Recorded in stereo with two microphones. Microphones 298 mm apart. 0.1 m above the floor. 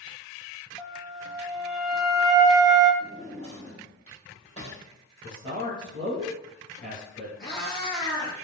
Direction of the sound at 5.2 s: 5° left (ahead or behind).